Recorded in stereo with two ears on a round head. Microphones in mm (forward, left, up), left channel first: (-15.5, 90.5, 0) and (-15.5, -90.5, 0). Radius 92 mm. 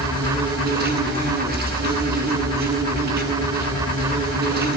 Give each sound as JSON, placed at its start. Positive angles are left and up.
{"t": 0.0, "sound": "an insect", "side_deg": -55, "distance_m": 9.0}